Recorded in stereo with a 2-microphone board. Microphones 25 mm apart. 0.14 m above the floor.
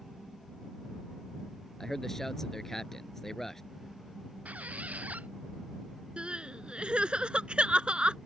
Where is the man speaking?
10° left (ahead or behind).